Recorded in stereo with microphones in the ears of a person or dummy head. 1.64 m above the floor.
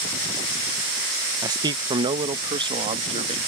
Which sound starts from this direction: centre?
A man speaking, at 1.4 s.